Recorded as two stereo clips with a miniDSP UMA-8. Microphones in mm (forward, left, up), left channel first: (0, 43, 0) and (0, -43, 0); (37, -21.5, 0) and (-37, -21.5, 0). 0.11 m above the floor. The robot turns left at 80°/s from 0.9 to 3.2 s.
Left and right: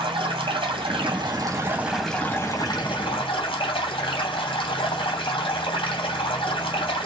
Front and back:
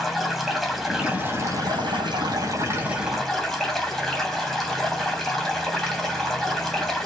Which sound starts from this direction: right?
Running water, at 0.0 s.